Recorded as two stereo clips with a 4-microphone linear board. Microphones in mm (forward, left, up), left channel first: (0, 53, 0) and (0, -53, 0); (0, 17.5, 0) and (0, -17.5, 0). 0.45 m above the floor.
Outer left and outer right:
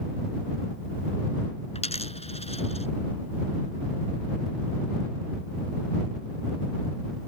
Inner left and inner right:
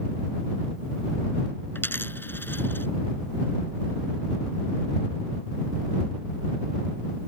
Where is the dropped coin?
85° left.